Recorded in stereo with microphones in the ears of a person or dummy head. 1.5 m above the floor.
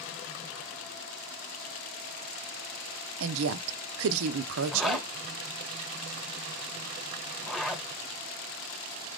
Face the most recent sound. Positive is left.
turn(degrees=0)  # may be behind; listen again after turning